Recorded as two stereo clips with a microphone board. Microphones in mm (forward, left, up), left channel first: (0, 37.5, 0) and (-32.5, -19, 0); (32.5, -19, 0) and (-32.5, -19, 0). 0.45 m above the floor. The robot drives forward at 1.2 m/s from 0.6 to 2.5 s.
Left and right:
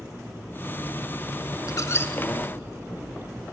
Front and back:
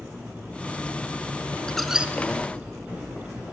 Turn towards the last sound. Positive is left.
turn(degrees=140)